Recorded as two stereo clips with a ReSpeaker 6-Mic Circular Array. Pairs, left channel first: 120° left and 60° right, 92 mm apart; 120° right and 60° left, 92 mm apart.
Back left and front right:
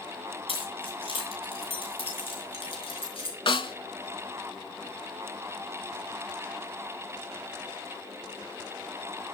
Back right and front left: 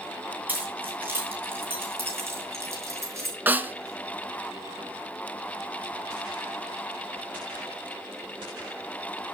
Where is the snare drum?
130° left, 0.8 m.